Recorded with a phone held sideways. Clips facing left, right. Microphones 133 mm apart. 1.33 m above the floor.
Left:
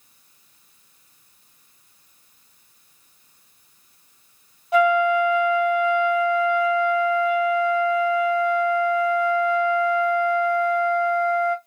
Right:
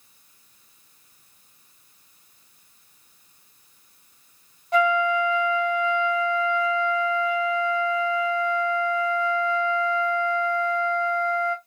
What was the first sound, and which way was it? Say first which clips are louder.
A flute: left 4 dB; 5° left (ahead or behind).